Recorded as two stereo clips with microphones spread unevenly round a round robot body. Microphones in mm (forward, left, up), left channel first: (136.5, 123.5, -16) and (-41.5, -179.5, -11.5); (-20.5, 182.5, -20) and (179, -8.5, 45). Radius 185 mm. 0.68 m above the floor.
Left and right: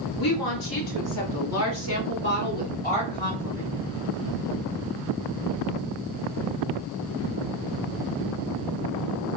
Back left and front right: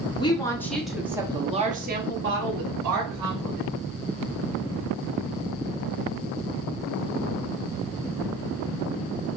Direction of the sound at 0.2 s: 75° left.